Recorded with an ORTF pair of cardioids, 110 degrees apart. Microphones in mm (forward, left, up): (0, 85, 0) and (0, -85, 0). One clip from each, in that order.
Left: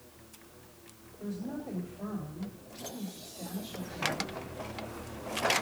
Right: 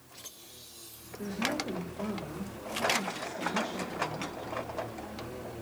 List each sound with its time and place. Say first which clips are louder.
1.2 s a woman speaking: right 7 dB; 70° right, 2.5 m